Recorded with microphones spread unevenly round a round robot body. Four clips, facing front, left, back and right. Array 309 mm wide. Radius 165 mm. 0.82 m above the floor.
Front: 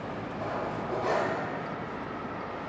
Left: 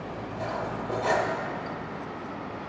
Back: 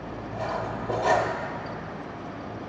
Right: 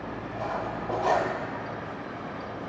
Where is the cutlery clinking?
170° right, 1.0 m.